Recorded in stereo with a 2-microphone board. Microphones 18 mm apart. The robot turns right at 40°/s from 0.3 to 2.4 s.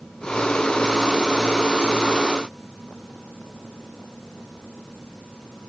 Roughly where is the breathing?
No breathing in this recording.